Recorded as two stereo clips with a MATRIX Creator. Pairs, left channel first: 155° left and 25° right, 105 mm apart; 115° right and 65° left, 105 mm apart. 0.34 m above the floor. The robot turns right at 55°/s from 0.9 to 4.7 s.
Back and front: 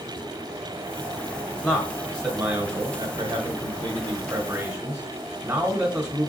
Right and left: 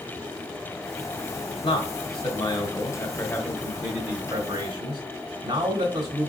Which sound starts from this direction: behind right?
A man speaking, at 1.6 s.